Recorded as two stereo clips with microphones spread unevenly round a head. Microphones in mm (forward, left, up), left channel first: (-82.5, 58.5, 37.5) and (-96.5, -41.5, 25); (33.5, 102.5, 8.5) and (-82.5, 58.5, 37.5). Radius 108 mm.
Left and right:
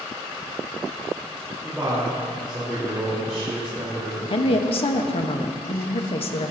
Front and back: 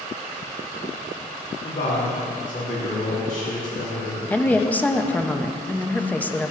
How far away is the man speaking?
About 4 m.